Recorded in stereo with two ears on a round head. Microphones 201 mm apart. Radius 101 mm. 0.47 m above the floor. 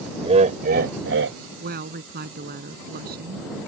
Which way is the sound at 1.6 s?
45° right (ahead or behind).